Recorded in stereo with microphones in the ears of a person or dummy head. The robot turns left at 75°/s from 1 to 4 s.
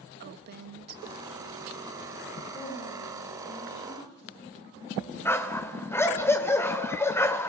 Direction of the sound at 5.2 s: 15° left (ahead or behind).